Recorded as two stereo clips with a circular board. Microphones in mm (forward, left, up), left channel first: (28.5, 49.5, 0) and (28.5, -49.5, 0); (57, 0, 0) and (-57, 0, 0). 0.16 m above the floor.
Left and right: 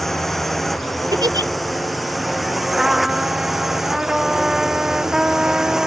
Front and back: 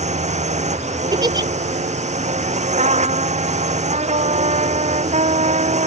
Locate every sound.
0.0 s a drone: straight behind; by 5.9 s 175° right
1.1 s a giggle: 130° right
2.8 s a trumpet: 175° right